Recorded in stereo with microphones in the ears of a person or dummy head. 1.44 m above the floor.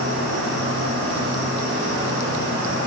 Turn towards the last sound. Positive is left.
turn(degrees=-65)  # may be behind; listen again after turning